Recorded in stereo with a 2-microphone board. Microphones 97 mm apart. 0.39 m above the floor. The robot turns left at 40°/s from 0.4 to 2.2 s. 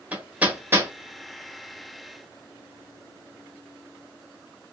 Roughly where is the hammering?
Centre.